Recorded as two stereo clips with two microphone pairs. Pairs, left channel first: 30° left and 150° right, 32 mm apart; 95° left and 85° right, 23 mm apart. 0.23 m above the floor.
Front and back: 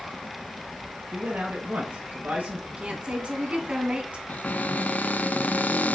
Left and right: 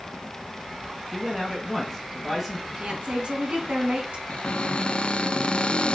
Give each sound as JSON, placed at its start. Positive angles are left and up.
{"t": 1.1, "sound": "a man speaking", "azimuth_deg": -165, "distance_m": 2.0}
{"t": 2.7, "sound": "a woman speaking", "azimuth_deg": -110, "distance_m": 2.5}
{"t": 4.3, "sound": "a cupboard door", "azimuth_deg": 55, "distance_m": 0.6}